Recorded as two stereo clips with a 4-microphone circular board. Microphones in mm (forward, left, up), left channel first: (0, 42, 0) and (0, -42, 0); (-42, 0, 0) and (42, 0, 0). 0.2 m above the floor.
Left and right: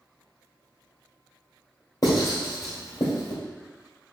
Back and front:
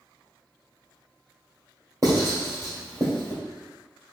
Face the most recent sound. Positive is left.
turn(degrees=45)